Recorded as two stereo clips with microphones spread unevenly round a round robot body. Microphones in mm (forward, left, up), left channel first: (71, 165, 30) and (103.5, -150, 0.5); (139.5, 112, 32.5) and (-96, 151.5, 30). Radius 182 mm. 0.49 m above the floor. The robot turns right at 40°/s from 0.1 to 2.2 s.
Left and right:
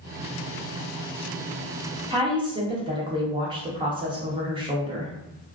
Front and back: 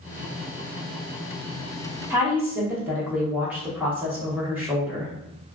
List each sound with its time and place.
2.1 s a woman speaking: 120° right, 0.7 m; by 5.1 s 115° right, 0.7 m